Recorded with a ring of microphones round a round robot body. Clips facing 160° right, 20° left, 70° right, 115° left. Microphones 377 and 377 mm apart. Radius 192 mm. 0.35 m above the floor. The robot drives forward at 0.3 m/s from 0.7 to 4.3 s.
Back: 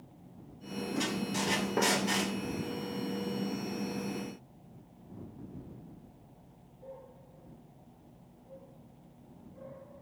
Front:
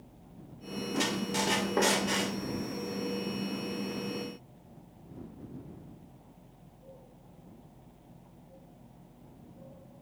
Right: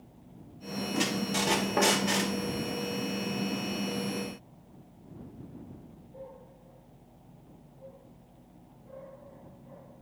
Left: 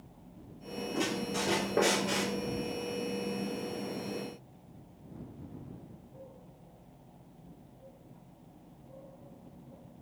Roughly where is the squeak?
Ahead right.